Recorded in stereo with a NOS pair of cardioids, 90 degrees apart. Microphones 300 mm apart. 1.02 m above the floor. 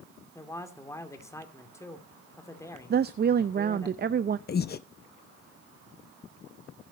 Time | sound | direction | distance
0.3 | a man speaking | 10° left | 2.5 m
2.9 | a woman speaking | 35° right | 0.6 m
4.5 | breathing | 35° left | 0.7 m